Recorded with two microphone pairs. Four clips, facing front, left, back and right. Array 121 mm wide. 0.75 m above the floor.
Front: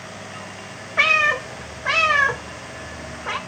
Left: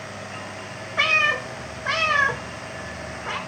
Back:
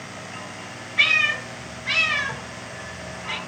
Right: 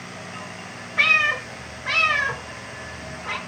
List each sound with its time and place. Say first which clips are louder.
1.0 s a cat meowing: even, front 5 dB; 20° left, 1.0 m